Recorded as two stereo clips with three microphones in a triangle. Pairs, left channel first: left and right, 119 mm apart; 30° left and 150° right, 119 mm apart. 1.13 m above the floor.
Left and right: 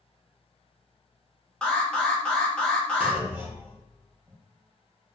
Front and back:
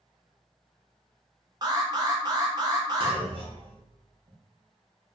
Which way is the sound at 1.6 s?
170° left.